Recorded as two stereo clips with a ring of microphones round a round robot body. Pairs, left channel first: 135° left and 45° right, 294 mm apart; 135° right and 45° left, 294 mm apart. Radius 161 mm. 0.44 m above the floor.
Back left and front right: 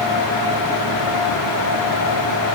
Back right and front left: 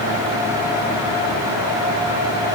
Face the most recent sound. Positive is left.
No sound to turn to.